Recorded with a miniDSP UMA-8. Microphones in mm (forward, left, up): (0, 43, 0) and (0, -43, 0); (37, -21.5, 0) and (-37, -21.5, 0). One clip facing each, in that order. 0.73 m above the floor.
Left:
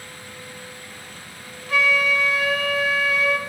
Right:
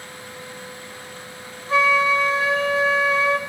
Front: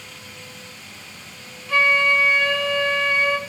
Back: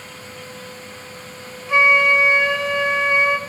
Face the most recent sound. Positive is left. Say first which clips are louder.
# right 3 dB, back 3 dB
turn(degrees=-125)